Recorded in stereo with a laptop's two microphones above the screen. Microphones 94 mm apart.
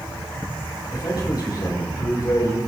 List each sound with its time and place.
0.9 s a man speaking: 45° left (ahead or behind), 5 m